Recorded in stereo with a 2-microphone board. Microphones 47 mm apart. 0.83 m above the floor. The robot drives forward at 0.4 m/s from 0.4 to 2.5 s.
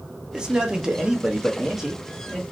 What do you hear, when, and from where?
0.3 s a man speaking: 20° right (ahead or behind), 0.7 m; by 2.4 s 10° right (ahead or behind), 1.3 m